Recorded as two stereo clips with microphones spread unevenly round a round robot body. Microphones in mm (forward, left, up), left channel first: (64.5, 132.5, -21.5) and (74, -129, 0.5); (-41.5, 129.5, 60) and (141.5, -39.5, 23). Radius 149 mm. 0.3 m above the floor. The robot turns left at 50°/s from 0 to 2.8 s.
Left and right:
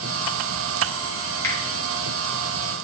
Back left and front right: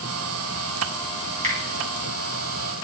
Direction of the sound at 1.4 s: 15° left.